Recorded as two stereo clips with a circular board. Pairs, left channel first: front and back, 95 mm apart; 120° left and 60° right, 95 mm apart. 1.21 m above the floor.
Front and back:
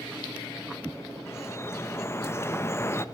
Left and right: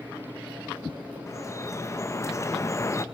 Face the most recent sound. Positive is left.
turn(degrees=65)